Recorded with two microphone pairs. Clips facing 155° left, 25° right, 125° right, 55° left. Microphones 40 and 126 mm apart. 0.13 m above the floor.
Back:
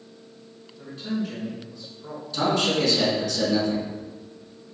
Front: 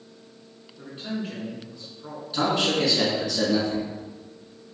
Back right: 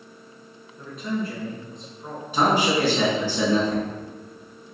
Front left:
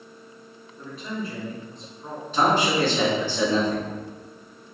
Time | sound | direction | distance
0.8 | a man speaking | 30° right | 1.2 m
2.3 | a man speaking | 60° right | 1.1 m